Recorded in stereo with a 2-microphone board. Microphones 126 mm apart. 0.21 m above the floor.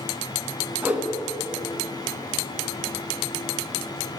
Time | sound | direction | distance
0.8 | a whoosh | 15° right (ahead or behind) | 0.9 m